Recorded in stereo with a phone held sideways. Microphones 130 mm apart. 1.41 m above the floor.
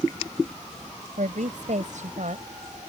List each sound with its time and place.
1.2 s a woman speaking: 70° right (ahead or behind); by 2.9 s 65° right (ahead or behind)